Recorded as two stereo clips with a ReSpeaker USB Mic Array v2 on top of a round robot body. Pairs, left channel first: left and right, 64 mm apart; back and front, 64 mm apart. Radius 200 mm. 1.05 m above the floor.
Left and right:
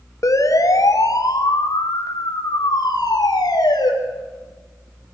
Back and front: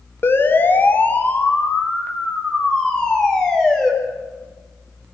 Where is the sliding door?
No sliding door in this recording.